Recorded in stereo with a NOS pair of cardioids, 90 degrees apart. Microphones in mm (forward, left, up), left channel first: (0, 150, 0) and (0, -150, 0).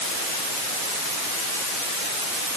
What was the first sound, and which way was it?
Only background noise.